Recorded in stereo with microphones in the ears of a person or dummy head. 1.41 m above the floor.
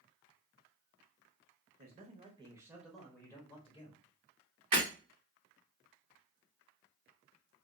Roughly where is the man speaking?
Right.